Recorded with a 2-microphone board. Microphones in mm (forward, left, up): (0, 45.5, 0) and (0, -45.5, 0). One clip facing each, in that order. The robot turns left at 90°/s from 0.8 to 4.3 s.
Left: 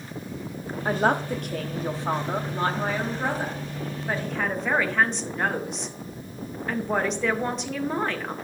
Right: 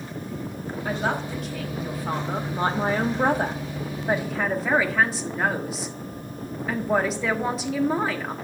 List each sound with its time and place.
0.8 s a man speaking: 135° left, 1.1 m; by 8.3 s 175° right, 1.1 m